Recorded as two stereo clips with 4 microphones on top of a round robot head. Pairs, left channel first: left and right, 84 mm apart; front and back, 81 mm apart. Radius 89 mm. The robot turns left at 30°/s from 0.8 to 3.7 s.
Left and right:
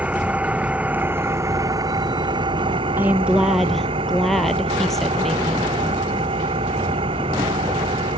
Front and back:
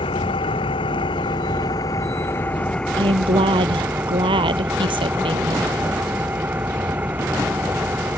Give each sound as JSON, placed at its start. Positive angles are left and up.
{"t": 0.0, "sound": "an engine running", "azimuth_deg": -20}
{"t": 3.0, "sound": "a woman speaking", "azimuth_deg": -160}